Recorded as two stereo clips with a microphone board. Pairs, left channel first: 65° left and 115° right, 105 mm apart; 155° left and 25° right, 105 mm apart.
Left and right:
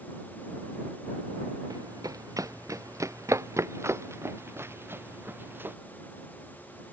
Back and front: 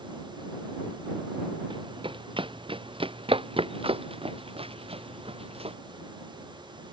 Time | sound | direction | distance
1.7 | running footsteps | 60° right | ?